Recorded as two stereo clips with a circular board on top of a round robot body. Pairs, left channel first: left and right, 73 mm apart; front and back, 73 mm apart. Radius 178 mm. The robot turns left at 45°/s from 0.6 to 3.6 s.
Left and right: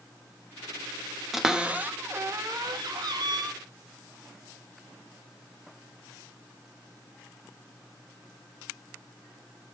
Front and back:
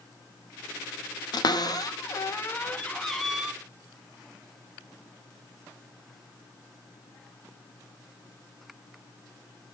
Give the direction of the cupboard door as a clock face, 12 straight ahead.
12 o'clock.